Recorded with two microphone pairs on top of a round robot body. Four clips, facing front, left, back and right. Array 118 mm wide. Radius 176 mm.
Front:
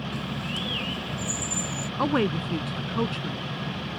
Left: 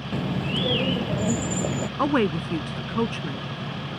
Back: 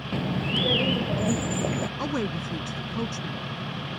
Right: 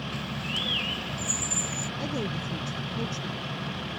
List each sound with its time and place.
0.1 s a bird: 135° left
2.0 s a woman speaking: 65° left